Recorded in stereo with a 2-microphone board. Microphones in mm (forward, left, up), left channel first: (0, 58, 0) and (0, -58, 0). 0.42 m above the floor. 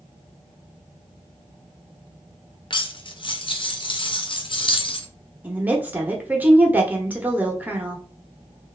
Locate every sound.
2.7 s cutlery clinking: 45° left (ahead or behind), 0.5 m
5.4 s a woman speaking: 15° right (ahead or behind), 0.8 m